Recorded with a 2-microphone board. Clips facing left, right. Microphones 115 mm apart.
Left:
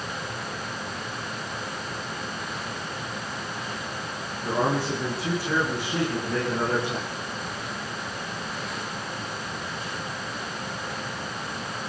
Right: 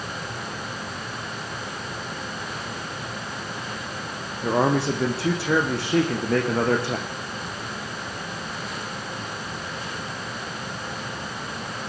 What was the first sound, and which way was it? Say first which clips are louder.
A man speaking: right 4 dB; 75° right (ahead or behind).